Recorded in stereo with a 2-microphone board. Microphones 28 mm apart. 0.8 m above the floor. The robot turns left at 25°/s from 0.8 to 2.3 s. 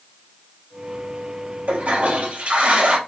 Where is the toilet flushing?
85° right, 2.5 m; by 3.0 s 70° right (ahead or behind), 2.5 m.